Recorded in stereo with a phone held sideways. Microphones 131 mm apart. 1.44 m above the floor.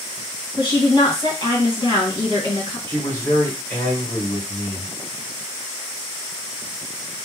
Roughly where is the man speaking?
Centre.